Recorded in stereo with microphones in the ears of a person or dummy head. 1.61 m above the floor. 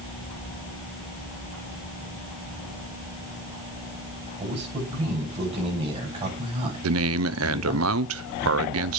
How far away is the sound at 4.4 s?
About 7.5 m.